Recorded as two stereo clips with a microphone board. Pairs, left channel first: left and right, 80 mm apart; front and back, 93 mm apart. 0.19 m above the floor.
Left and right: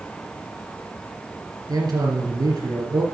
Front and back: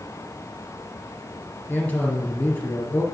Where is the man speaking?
75° right, 2.5 m.